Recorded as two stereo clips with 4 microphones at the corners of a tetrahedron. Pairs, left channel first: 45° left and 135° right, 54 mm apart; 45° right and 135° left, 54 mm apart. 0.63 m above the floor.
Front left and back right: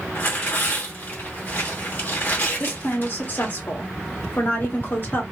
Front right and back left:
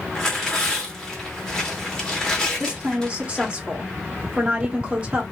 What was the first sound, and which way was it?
Tearing paper, 25° left.